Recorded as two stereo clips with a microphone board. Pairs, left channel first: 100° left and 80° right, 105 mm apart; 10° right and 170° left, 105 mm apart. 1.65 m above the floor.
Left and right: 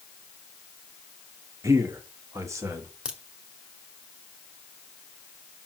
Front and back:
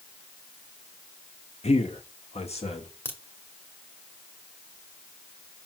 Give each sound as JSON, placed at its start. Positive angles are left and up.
{"t": 1.6, "sound": "a man speaking", "azimuth_deg": -15, "distance_m": 1.1}
{"t": 3.0, "sound": "a crack", "azimuth_deg": -10, "distance_m": 1.4}